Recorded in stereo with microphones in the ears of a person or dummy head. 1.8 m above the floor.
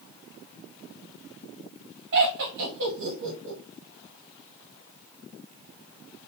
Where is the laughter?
50° right (ahead or behind), 1.0 m.